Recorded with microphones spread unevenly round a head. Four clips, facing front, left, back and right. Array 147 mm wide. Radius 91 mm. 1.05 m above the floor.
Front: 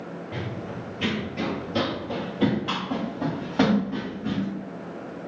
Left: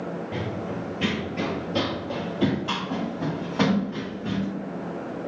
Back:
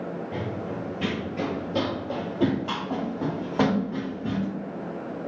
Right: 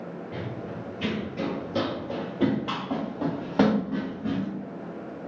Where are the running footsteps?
105° left, 1.2 m; by 4.5 s 115° right, 2 m.